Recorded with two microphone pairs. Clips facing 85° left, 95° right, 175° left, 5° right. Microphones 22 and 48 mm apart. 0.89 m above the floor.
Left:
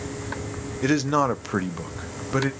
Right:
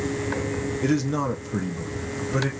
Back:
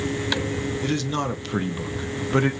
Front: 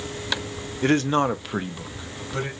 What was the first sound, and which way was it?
A man speaking, 30° left.